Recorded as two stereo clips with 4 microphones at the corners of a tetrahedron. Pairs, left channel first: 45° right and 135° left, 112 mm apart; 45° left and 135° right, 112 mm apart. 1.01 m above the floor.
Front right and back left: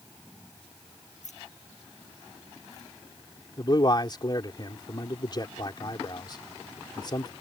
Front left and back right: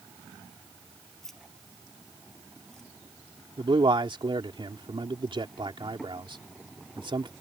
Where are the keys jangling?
40° right.